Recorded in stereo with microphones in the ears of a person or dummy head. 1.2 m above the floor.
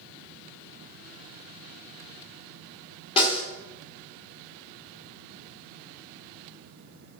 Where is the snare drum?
30° left (ahead or behind), 3 m.